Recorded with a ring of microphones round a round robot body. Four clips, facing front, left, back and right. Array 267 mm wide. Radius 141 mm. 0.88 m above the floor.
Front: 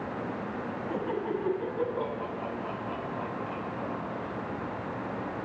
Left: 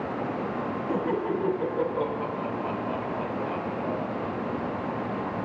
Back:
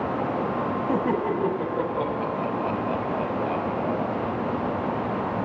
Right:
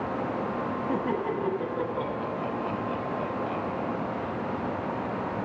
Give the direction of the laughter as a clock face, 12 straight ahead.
6 o'clock.